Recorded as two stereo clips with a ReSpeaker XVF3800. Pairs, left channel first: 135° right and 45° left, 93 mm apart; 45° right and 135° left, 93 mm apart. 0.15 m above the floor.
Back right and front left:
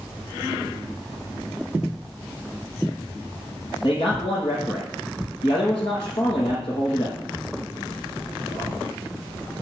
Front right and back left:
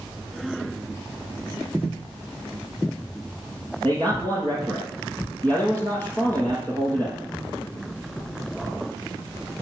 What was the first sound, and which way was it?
A man speaking, 115° right.